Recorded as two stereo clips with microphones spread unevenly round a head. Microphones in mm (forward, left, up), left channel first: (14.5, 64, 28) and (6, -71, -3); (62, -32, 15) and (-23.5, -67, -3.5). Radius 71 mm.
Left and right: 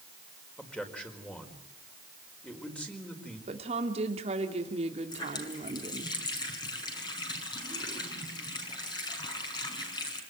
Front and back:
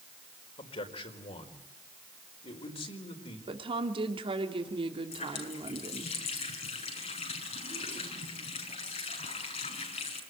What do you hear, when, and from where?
0.6 s a man speaking: straight ahead, 4.5 m
3.5 s a woman speaking: 140° right, 2.5 m
5.1 s a running tap: 25° left, 6 m